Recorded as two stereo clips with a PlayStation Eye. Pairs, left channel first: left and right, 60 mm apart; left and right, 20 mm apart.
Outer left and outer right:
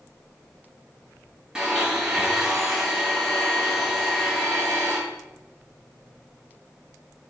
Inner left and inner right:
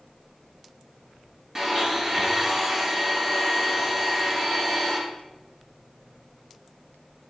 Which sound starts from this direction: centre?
A blender, at 1.6 s.